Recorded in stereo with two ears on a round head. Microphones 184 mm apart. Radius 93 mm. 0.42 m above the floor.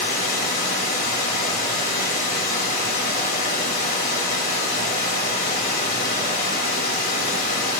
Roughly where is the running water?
Left.